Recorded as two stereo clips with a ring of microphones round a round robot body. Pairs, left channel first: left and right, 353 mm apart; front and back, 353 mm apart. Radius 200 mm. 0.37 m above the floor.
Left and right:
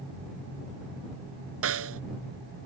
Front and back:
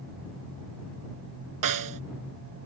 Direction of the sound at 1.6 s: 150° right.